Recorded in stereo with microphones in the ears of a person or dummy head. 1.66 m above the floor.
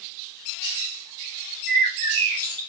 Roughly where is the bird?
Left.